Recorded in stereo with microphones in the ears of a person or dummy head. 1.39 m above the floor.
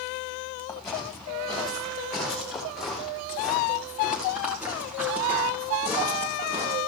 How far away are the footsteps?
About 6.5 m.